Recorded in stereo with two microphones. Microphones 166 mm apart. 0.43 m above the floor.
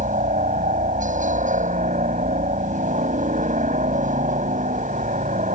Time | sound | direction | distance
0.0 | a helicopter | 50° right (ahead or behind) | ?